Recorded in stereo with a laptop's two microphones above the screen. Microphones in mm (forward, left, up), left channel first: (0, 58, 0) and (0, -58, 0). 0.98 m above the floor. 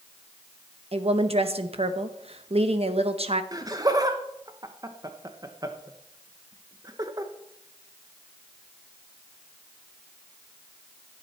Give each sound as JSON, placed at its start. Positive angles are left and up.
{"t": 0.9, "sound": "a woman speaking", "side_deg": -60, "distance_m": 0.9}
{"t": 3.5, "sound": "laughter", "side_deg": -30, "distance_m": 0.9}